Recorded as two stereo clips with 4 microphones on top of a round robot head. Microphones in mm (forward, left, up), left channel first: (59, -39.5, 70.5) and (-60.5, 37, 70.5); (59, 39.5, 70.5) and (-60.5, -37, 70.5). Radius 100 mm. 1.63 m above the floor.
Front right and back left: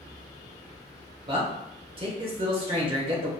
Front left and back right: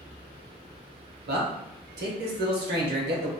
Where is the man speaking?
160° right, 0.8 m.